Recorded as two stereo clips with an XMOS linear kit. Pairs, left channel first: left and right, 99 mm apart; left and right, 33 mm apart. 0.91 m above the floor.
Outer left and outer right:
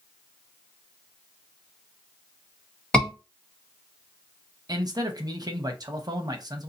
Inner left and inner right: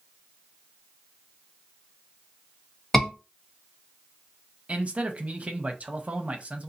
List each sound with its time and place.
2.9 s a scream: 10° left (ahead or behind), 1.4 m
4.7 s a man speaking: 40° right (ahead or behind), 0.7 m